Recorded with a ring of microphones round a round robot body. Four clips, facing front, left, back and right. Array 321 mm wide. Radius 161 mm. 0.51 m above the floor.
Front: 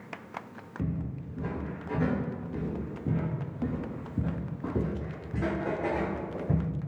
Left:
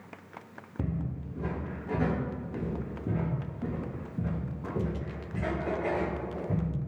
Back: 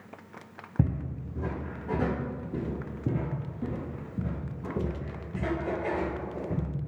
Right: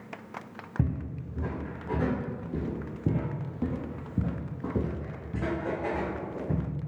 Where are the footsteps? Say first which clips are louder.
Right 2 dB, back 4 dB; 165° right, 1.8 m; by 6.7 s 30° right, 2 m.